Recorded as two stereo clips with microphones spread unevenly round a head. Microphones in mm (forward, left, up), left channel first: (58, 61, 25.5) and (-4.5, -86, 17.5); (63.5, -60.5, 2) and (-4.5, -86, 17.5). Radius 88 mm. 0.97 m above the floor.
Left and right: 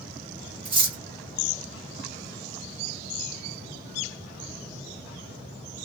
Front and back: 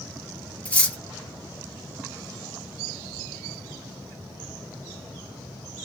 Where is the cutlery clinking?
55° right, 1.3 m.